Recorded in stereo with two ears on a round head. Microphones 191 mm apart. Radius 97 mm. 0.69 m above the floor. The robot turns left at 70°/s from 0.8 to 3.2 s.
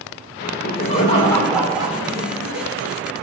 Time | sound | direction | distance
0.4 | laughter | 50° left | 2.5 m